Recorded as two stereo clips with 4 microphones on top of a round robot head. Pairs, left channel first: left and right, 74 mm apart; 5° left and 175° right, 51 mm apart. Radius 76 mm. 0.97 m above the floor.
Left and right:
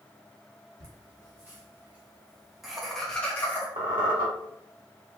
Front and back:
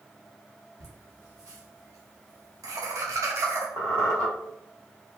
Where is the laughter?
140° right, 1.6 m; by 3.7 s 155° left, 1.0 m.